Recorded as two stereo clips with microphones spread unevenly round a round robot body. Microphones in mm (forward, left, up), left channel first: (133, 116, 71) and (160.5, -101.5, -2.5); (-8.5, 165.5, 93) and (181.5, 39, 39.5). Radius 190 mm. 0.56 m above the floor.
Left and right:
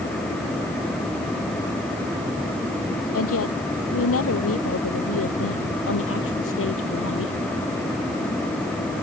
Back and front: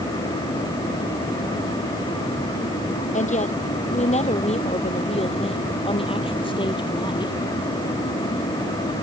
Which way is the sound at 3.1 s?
90° left.